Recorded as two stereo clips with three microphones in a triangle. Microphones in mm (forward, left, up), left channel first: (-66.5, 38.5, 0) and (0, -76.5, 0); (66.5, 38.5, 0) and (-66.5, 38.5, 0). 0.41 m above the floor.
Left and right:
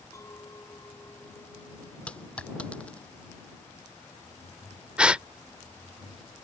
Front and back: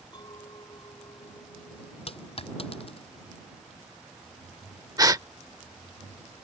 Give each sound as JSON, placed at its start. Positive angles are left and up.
{"t": 0.1, "sound": "a clink", "azimuth_deg": 55}
{"t": 2.1, "sound": "a dropped coin", "azimuth_deg": 40}
{"t": 5.0, "sound": "a gasp", "azimuth_deg": -140}